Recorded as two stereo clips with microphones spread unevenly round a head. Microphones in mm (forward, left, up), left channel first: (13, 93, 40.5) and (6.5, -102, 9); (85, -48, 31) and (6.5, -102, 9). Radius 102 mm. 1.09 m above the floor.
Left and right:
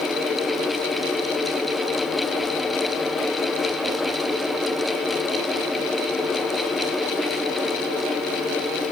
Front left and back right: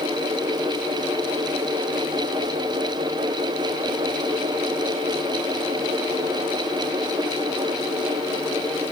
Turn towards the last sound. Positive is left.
No sound to turn to.